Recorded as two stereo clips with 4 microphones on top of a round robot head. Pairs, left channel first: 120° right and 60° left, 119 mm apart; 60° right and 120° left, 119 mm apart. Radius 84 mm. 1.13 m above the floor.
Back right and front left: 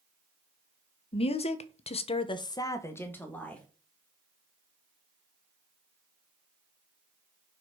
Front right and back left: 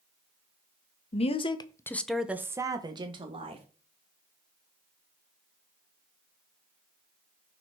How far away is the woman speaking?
About 1.2 m.